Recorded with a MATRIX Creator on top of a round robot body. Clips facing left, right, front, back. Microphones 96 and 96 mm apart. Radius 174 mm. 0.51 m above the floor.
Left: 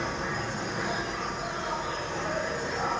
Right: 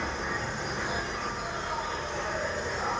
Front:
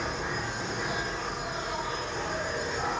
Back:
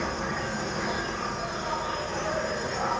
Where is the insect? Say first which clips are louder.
Left 1 dB, back 2 dB; 155° left, 4.5 m.